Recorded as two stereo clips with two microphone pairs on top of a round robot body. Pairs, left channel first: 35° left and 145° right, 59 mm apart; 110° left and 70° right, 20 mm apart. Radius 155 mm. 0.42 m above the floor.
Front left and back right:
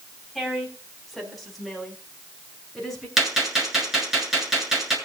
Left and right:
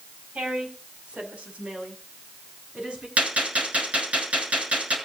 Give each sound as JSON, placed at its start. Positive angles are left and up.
{"t": 0.3, "sound": "a woman speaking", "azimuth_deg": -60, "distance_m": 4.0}
{"t": 3.2, "sound": "a gunshot", "azimuth_deg": -60, "distance_m": 7.0}